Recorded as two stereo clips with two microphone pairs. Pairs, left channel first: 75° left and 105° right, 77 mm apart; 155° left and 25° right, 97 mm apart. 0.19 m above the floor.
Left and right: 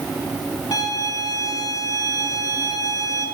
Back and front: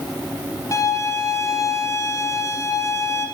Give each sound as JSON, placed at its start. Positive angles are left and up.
{"t": 0.7, "sound": "a violin", "azimuth_deg": 105, "distance_m": 3.0}